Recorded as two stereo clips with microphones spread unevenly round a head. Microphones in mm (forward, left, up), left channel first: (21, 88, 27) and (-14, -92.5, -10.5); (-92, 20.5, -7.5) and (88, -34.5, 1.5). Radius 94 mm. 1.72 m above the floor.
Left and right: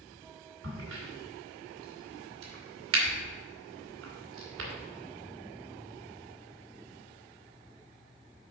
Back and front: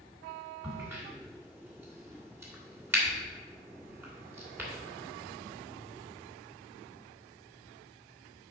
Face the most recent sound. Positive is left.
turn(degrees=-90)